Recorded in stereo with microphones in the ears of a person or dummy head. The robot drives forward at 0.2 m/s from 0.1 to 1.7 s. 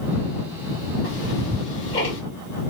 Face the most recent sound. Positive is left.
turn(degrees=45)  # may be behind; listen again after turning